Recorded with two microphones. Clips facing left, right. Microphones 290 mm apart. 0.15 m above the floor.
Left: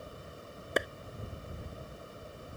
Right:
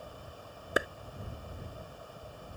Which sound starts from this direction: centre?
A clap, at 0.8 s.